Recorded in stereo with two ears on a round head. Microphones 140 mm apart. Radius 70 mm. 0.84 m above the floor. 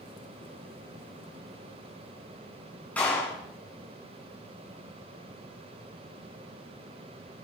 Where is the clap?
10° left (ahead or behind), 7 m.